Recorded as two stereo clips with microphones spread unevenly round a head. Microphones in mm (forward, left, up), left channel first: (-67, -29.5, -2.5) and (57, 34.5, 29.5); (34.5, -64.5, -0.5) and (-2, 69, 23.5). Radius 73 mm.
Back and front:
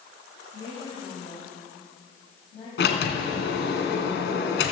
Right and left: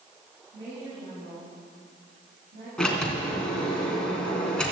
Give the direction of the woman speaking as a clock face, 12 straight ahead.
7 o'clock.